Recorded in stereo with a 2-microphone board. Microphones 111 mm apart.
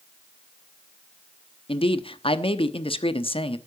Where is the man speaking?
55° left (ahead or behind), 1.0 m.